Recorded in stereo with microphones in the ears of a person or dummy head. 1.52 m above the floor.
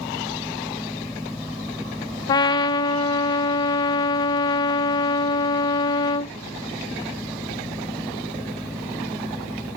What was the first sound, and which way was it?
A fan, 5° right (ahead or behind).